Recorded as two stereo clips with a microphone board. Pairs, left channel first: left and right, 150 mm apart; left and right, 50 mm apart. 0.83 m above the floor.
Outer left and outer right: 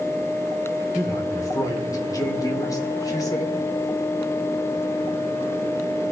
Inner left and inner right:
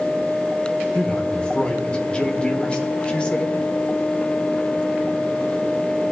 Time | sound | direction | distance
0.9 | a man speaking | 25° left (ahead or behind) | 2 m